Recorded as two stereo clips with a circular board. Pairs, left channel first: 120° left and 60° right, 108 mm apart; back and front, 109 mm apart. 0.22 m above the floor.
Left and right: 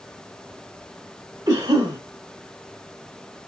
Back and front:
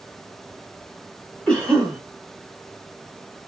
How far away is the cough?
About 1.4 m.